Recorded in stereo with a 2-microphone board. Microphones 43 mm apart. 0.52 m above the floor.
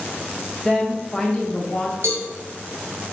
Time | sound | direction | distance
0.7 | a woman speaking | centre (ahead or behind) | 0.7 m
2.0 | a cowbell | 75° right (ahead or behind) | 1.3 m